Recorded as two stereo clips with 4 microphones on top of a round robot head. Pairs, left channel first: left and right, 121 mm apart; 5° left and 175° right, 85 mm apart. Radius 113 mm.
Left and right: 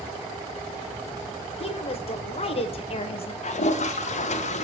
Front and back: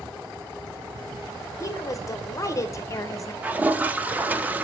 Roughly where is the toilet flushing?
Left.